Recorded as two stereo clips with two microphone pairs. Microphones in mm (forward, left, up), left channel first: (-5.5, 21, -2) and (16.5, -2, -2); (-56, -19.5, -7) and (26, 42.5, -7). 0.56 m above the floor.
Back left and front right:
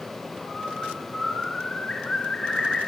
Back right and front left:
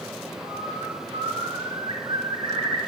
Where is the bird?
75° left, 2.5 m.